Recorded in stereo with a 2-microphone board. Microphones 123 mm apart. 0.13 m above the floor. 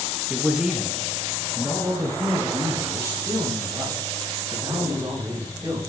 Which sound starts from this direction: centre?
A man speaking, at 0.3 s.